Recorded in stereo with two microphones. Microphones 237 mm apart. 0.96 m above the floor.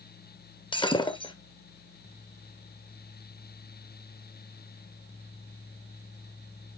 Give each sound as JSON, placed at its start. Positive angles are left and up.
{"t": 0.7, "sound": "breaking glass", "side_deg": 20, "distance_m": 1.0}